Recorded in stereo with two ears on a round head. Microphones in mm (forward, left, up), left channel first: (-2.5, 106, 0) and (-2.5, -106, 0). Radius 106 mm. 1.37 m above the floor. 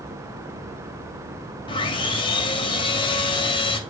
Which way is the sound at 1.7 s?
20° left (ahead or behind).